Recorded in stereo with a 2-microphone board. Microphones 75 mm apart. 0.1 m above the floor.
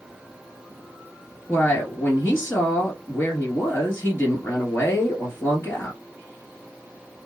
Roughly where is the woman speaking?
Left.